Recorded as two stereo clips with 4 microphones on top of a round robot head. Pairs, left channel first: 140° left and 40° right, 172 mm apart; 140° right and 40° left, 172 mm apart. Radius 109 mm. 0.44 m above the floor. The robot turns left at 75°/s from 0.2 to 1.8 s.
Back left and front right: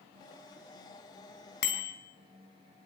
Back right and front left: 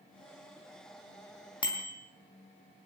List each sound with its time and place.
1.6 s a bicycle bell: 155° left, 3.5 m; by 1.9 s 145° left, 3.5 m